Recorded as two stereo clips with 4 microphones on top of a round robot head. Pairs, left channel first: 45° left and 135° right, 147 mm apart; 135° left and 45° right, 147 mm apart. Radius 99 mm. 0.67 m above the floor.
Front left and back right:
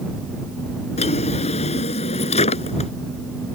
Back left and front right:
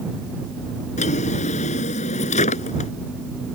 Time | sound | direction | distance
1.0 | a drawer | 90° left | ?